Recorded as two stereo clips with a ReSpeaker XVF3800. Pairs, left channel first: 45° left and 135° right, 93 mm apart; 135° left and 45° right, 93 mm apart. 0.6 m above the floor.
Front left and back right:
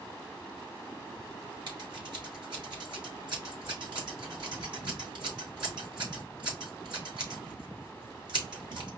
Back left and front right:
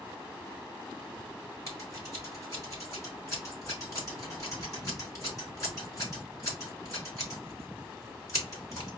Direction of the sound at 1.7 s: 170° right.